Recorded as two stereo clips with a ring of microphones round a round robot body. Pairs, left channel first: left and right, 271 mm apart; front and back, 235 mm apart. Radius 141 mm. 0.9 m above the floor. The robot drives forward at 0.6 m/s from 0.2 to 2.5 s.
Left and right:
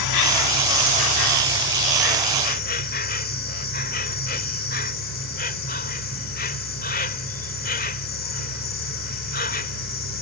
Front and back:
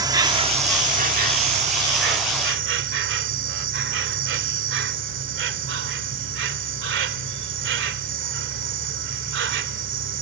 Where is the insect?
105° left; by 10.2 s 145° left.